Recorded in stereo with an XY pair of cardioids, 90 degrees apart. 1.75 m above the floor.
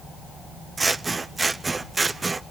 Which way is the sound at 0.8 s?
30° right.